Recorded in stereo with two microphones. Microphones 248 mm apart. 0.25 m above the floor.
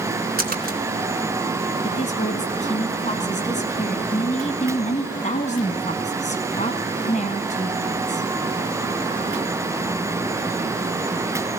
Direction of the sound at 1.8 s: 30° left (ahead or behind).